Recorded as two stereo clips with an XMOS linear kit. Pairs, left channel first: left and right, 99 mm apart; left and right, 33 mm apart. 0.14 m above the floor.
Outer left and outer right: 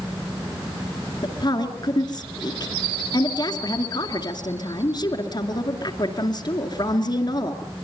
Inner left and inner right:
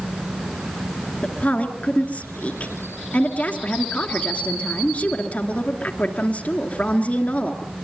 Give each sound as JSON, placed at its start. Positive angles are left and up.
{"t": 1.2, "sound": "a woman speaking", "side_deg": 50, "distance_m": 2.5}